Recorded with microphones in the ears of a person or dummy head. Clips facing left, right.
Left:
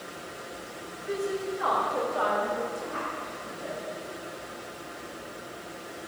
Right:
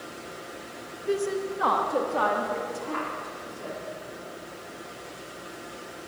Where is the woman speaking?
45° right (ahead or behind), 1.2 m; by 3.8 s 70° right (ahead or behind), 3 m.